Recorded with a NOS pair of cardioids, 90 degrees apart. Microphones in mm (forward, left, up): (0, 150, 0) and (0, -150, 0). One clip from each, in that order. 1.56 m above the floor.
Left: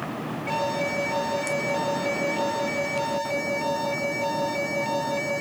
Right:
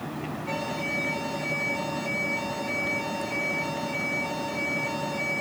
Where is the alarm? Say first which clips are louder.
Left 5 dB; 55° left, 3.5 m.